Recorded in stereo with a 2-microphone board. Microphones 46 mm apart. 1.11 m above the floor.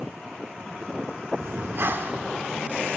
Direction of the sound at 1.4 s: 55° right (ahead or behind).